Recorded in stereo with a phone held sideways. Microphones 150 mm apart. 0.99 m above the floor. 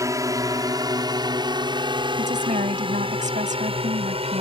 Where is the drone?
20° right (ahead or behind); by 4.4 s 40° right (ahead or behind).